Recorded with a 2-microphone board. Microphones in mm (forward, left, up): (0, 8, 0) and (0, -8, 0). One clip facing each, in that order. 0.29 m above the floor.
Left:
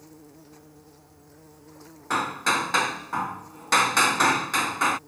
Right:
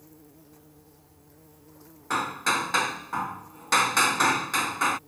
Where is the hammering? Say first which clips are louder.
Left 2 dB; 5° left (ahead or behind).